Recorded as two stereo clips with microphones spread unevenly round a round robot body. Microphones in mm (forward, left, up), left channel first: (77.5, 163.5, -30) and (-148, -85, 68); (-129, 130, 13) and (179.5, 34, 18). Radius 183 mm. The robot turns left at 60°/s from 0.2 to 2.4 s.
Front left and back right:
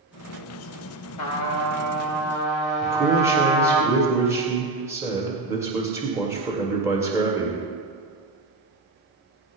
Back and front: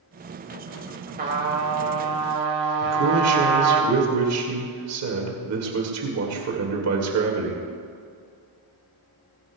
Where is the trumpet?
40° left, 2.5 m; by 3.8 s 35° right, 2.5 m.